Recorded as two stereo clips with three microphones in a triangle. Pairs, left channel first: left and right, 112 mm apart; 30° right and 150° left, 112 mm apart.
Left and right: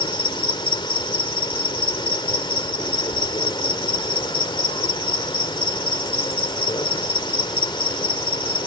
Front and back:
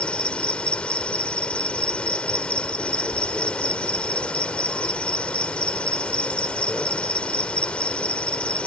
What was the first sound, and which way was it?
An insect, 50° left.